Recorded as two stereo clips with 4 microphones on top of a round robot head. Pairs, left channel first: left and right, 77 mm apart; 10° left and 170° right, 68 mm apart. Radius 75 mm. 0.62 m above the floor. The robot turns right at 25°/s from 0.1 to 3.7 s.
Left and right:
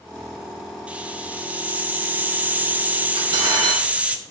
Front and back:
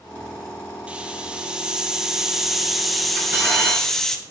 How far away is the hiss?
About 1.1 m.